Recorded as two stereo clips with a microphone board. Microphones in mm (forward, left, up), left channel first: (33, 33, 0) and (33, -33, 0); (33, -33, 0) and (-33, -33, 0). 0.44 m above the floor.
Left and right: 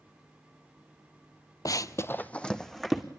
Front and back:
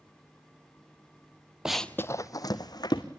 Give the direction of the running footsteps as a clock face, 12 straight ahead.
9 o'clock.